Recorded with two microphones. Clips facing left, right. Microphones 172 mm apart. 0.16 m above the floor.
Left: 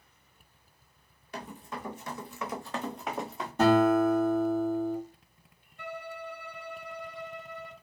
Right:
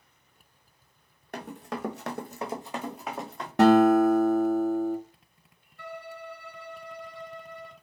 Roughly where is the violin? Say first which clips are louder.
Left 1 dB; centre.